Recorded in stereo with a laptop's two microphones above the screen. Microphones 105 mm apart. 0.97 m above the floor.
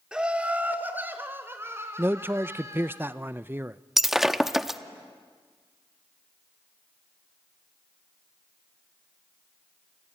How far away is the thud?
No thud in this recording.